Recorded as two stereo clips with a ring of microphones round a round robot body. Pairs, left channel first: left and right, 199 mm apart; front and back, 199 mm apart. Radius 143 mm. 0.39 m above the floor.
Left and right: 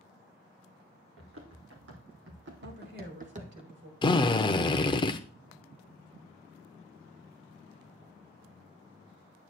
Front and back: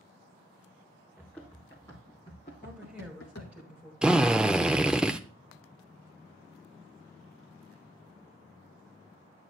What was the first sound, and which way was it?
Running footsteps, 90° right.